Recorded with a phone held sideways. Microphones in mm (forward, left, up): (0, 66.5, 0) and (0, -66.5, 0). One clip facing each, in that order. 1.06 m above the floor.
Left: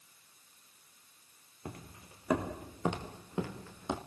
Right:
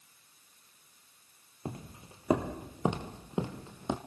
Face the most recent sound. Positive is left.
turn(degrees=-20)  # may be behind; listen again after turning